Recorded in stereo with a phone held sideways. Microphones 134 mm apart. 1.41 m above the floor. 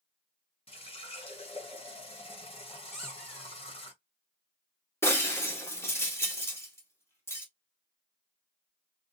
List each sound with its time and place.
0.7 s a running tap: 45° left (ahead or behind), 0.8 m
2.9 s a squeak: centre (ahead or behind), 1.6 m
5.0 s breaking glass: 20° left (ahead or behind), 1.5 m